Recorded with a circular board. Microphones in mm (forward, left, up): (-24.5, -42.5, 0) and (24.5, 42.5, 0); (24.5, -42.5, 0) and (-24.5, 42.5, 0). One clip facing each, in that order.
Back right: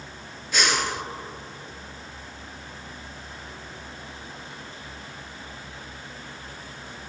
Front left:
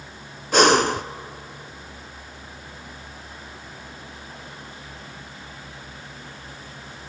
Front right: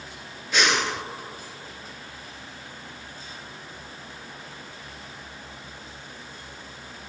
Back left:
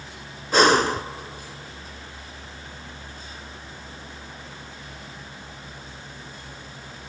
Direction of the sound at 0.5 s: 80° left.